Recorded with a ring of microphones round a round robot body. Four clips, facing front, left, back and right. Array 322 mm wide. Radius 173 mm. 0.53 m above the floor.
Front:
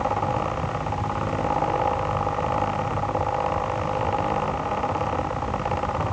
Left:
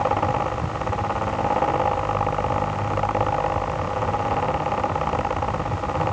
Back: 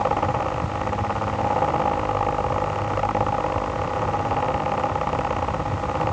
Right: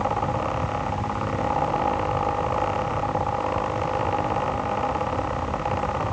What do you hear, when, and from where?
Only background noise.